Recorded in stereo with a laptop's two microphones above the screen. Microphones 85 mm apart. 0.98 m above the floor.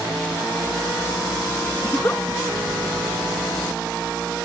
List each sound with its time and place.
1.8 s a giggle: 25° left (ahead or behind), 0.5 m